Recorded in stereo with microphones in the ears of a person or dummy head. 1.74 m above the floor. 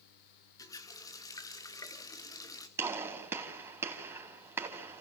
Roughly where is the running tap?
Centre.